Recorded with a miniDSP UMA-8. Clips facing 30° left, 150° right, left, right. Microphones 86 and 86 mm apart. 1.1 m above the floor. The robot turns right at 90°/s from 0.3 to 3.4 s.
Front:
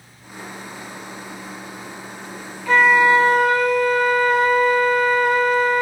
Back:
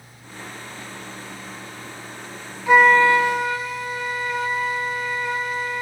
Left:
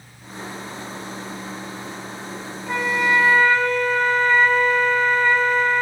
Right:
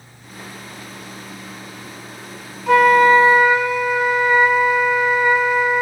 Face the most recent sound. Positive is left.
turn(degrees=-10)